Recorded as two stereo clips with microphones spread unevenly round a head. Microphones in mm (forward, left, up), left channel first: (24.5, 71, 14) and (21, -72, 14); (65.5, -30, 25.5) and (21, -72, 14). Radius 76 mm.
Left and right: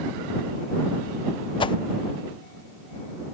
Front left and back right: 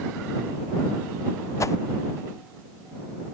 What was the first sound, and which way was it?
A whoosh, 35° left.